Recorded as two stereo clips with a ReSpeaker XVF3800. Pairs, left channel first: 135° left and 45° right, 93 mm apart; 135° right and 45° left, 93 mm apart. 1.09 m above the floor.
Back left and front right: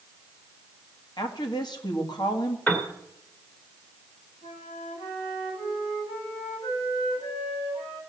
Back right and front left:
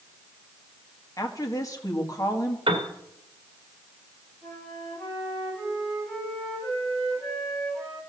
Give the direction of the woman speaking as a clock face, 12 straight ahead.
6 o'clock.